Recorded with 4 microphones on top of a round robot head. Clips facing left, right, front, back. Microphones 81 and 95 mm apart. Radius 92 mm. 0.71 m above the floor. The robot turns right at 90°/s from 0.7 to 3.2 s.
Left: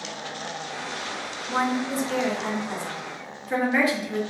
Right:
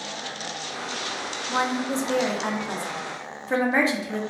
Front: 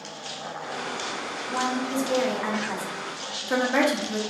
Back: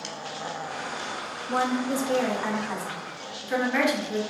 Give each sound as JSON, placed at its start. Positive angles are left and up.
{"t": 1.5, "sound": "a woman speaking", "azimuth_deg": 170, "distance_m": 1.1}